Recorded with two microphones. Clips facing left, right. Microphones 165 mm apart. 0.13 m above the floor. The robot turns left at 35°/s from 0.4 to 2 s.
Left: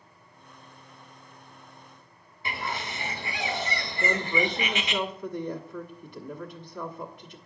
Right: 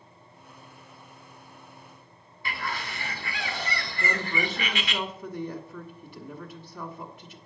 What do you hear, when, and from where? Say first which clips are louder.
2.5 s a bird: left 1 dB; 20° left (ahead or behind), 0.9 m
4.0 s a woman speaking: left 4 dB; 5° right (ahead or behind), 1.3 m